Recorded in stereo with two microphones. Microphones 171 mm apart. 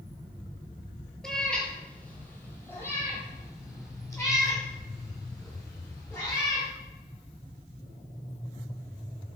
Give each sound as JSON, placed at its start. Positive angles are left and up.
{"t": 1.2, "sound": "a cat meowing", "side_deg": 5, "distance_m": 1.3}